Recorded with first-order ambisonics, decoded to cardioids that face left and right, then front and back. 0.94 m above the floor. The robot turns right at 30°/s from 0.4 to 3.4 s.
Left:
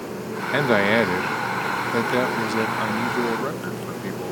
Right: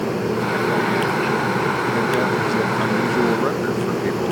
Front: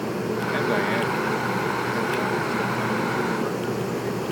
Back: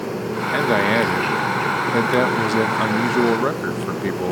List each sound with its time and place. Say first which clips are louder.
0.5 s a man speaking: left 4 dB, back 7 dB; 115° left; by 4.3 s 155° right